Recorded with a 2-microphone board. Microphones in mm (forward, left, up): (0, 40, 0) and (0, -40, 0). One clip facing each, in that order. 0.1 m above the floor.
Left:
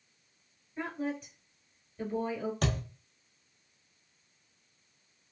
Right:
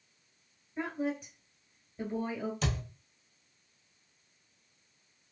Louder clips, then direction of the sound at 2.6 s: Left 2 dB; 50° left (ahead or behind).